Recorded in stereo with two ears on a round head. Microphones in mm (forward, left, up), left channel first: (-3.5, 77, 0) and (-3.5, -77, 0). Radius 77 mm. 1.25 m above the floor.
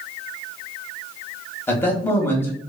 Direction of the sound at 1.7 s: 15° left (ahead or behind).